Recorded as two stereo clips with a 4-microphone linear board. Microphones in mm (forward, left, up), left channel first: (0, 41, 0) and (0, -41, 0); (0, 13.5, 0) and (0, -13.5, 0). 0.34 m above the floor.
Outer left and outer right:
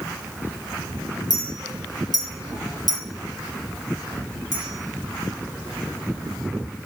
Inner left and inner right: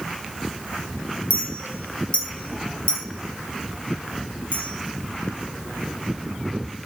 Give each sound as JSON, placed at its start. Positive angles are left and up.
{"t": 1.3, "sound": "a clink", "side_deg": 50, "distance_m": 1.4}